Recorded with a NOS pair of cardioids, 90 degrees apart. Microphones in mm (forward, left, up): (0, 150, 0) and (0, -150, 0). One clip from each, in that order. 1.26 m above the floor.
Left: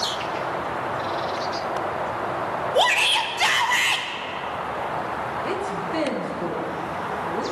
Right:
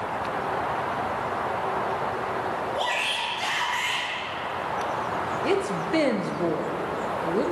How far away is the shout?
About 1.0 m.